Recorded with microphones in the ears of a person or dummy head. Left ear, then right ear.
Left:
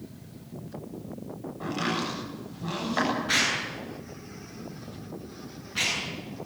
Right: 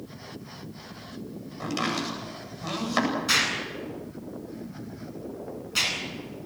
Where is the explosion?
85° right, 9 m.